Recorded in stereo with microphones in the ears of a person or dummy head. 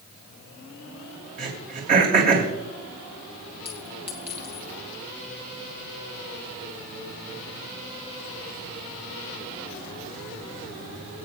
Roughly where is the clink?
Centre.